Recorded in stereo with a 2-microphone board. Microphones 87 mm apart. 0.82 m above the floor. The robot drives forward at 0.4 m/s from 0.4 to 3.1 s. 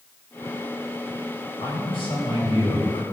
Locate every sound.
1.6 s a man speaking: 70° left (ahead or behind), 3.5 m; by 3.0 s 80° left, 3 m